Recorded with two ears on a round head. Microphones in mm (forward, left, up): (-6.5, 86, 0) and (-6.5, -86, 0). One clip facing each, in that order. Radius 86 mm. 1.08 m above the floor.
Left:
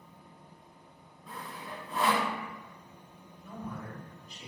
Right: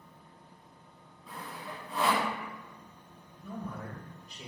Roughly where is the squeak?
No squeak in this recording.